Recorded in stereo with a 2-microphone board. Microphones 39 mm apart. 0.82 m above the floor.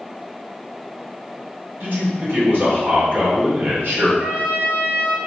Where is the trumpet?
45° right (ahead or behind), 0.8 m.